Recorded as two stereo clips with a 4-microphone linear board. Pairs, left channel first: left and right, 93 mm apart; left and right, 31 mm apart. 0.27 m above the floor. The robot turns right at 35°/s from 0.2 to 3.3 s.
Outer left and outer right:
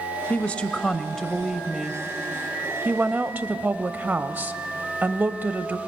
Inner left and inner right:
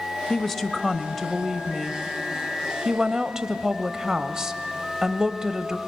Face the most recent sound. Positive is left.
turn(degrees=-20)  # may be behind; listen again after turning